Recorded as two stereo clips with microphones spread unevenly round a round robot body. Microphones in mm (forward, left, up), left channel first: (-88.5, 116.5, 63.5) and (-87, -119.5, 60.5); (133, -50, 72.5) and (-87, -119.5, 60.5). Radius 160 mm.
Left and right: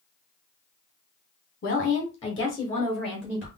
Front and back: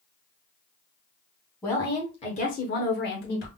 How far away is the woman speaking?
About 1.1 m.